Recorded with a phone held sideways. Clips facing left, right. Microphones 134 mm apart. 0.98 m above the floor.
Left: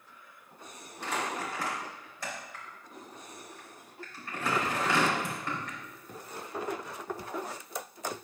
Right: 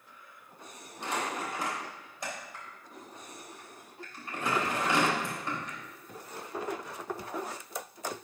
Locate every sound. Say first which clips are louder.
1.0 s crumpling: even; 20° right (ahead or behind), 3 m